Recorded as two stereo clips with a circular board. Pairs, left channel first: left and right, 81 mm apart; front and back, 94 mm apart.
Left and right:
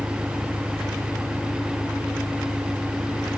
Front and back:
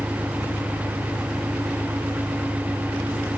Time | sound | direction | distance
0.0 | an engine running | 125° left | ?